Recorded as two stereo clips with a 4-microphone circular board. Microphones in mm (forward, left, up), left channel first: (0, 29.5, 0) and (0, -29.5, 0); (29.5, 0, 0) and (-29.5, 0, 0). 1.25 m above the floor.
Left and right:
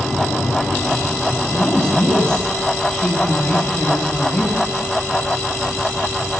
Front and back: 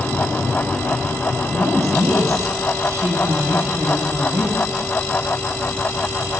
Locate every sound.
1.5 s a woman speaking: 165° left, 8.5 m